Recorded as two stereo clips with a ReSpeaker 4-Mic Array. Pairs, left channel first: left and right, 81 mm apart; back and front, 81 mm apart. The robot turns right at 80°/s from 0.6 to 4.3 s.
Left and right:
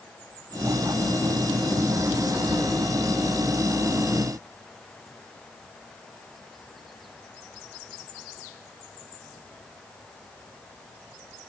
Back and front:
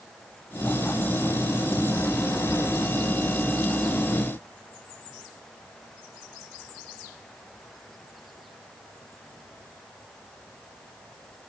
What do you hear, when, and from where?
Only background noise.